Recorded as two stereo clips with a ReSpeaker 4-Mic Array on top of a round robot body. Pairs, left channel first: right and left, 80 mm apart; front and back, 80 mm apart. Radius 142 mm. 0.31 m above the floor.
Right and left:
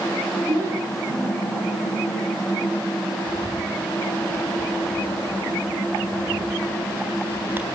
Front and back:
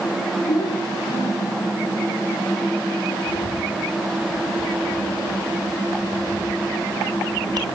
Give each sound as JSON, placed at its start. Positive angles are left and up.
{"t": 0.5, "sound": "a child speaking", "azimuth_deg": 40, "distance_m": 4.5}
{"t": 3.3, "sound": "a bird", "azimuth_deg": 155, "distance_m": 3.5}